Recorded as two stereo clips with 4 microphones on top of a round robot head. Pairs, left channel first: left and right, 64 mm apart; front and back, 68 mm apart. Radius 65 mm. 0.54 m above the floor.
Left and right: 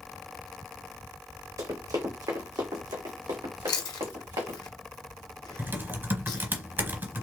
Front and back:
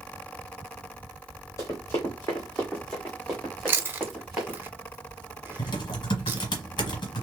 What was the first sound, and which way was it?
Running footsteps, 60° right.